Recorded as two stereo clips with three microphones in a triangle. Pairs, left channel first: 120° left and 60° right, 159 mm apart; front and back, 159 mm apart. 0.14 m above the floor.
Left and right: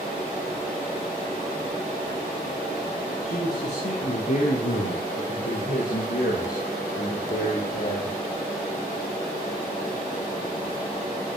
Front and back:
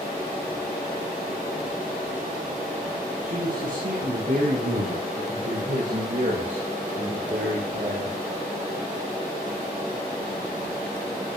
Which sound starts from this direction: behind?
A man speaking, at 3.2 s.